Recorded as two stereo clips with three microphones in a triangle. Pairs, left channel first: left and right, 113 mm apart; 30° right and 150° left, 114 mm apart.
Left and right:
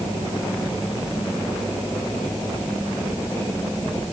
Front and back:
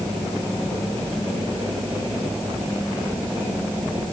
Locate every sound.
Only background noise.